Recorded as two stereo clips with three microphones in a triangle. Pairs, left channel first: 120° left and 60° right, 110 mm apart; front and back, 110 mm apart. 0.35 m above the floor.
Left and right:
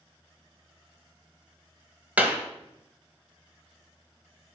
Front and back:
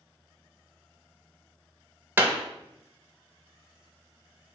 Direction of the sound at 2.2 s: 125° right.